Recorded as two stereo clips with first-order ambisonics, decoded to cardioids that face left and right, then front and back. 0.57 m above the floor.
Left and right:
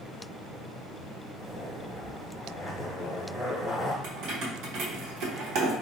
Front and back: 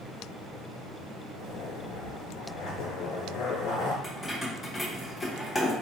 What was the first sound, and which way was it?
A zipper, 5° right.